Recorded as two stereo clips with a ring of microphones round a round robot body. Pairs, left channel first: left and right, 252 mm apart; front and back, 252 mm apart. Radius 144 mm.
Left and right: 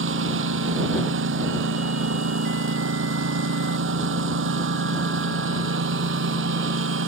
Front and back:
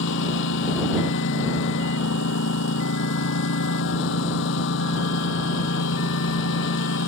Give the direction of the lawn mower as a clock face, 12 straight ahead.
2 o'clock.